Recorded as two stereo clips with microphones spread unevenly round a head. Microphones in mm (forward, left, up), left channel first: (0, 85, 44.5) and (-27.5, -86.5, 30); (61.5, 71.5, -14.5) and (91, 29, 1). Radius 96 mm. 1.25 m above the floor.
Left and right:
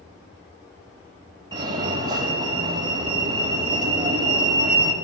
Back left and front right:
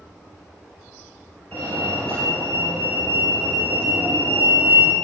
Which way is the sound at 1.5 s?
165° right.